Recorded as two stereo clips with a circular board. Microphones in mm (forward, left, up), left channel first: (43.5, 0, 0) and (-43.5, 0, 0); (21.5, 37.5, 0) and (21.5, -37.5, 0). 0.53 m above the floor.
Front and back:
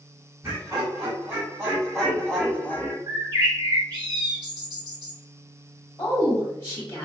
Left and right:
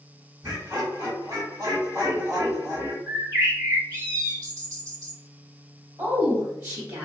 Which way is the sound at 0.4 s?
120° right.